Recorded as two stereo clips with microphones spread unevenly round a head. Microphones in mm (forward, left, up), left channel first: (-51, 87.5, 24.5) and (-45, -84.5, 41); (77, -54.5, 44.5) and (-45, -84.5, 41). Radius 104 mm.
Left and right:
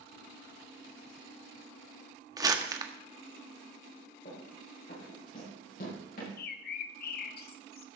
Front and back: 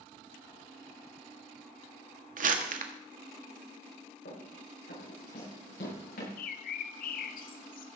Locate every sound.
2.4 s crumpling: 160° right, 1.5 m
4.2 s running footsteps: 35° left, 7.5 m; by 6.3 s 40° left, 10.5 m
6.4 s a bird: 45° left, 0.7 m